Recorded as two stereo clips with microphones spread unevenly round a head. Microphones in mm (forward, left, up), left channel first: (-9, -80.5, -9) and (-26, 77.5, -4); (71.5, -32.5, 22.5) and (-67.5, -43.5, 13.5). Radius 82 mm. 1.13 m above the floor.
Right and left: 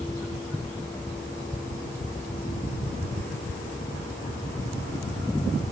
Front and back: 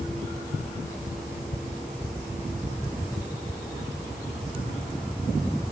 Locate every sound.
Only background noise.